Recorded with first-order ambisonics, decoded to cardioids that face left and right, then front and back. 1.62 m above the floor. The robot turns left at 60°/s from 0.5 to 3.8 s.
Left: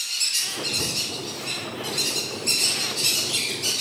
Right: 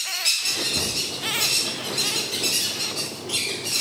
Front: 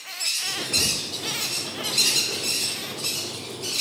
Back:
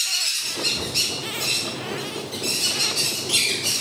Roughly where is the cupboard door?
Right.